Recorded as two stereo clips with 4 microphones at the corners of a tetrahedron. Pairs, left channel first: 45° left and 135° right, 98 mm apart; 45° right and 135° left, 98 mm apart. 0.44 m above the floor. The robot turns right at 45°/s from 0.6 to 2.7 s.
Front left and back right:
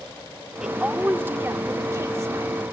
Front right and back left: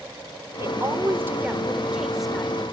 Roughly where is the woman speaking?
Behind left.